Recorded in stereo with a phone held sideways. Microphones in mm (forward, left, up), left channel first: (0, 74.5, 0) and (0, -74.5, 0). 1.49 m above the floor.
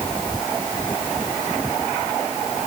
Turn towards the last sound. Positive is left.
No sound to turn to.